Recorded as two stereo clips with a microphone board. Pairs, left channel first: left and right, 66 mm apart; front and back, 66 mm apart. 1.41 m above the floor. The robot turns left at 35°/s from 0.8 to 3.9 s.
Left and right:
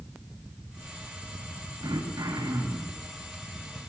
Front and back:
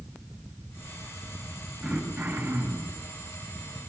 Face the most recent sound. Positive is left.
turn(degrees=180)